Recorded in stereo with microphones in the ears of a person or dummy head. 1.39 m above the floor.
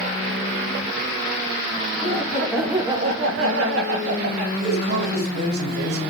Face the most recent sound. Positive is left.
turn(degrees=-70)  # may be behind; listen again after turning